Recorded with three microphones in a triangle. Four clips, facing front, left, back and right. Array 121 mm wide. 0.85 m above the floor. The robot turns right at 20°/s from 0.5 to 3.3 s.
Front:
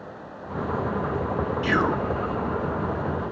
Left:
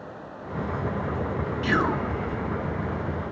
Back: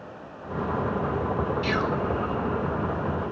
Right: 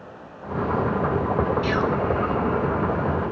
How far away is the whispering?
About 0.9 m.